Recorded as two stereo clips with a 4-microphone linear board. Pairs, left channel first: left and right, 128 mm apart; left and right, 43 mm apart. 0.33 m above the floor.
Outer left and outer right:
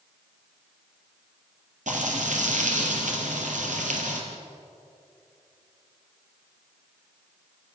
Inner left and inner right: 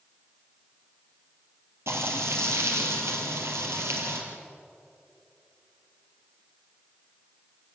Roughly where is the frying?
Right.